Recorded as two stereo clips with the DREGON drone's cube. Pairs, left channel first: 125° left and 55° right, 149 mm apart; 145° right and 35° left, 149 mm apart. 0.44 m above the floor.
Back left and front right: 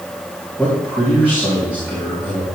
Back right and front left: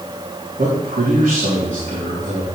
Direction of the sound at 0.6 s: 25° left.